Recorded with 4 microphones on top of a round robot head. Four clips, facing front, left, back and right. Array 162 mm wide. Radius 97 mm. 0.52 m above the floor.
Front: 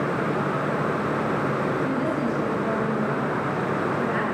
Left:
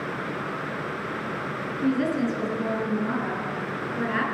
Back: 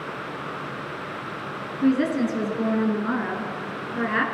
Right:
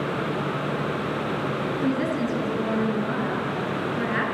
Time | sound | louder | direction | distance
1.8 | a woman speaking | left 3 dB, back 3 dB | 175° right | 8 m